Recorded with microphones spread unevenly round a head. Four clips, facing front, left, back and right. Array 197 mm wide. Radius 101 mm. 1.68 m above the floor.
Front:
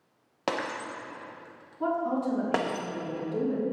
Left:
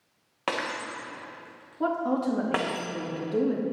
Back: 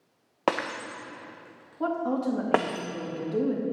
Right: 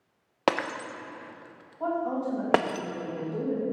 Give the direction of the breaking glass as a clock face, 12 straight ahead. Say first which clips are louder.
Right 4 dB, back 3 dB; 4 o'clock.